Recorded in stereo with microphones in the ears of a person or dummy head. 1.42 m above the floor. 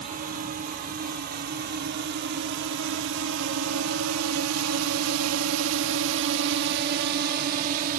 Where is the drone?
45° right (ahead or behind); by 8.0 s 40° right (ahead or behind).